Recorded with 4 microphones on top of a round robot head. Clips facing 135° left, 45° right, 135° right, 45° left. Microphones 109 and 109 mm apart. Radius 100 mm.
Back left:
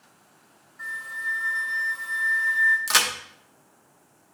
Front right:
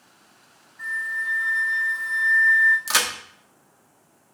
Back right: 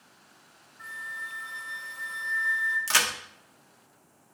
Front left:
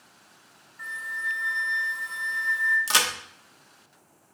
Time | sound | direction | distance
0.8 | a flute | 55° left | 1.6 m
2.9 | a crack | 40° left | 0.8 m